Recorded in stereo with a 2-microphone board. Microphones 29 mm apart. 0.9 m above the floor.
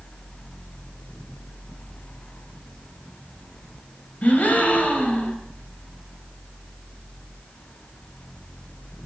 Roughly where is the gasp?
Left.